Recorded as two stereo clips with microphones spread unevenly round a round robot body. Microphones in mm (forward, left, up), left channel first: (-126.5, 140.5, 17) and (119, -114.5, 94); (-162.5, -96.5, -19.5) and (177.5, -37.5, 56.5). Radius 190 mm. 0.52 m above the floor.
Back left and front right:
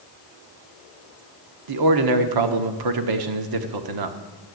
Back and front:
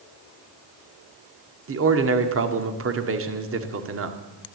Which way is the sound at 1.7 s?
45° right.